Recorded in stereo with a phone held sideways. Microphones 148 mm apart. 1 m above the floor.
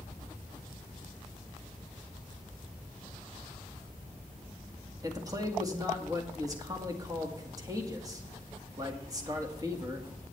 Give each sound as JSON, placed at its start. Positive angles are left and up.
{"t": 5.0, "sound": "a man speaking", "side_deg": -25, "distance_m": 2.0}